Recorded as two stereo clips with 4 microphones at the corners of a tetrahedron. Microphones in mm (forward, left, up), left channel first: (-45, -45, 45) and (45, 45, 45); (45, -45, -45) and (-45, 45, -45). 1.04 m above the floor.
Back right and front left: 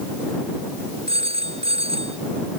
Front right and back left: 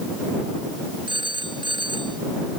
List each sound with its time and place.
1.1 s a phone ringing: 85° left